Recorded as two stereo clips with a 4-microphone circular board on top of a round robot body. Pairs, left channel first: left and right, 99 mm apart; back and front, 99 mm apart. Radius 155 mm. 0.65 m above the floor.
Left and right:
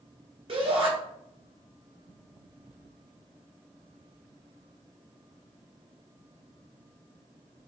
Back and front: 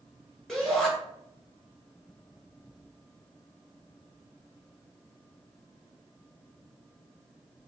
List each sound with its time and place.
0.5 s a shout: 95° right, 2 m